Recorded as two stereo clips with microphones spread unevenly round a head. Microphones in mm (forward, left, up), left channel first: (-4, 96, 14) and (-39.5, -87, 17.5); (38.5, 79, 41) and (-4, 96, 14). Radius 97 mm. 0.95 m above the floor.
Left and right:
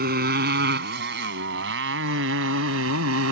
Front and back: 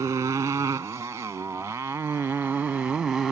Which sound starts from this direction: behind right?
A motorcycle, at 0.0 s.